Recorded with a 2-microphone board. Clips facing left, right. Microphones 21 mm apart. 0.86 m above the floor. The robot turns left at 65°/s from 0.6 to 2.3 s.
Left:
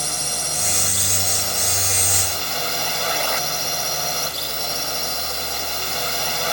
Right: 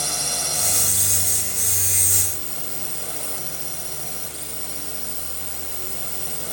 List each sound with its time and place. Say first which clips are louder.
0.0 s a drone: even; straight behind; by 6.5 s 70° left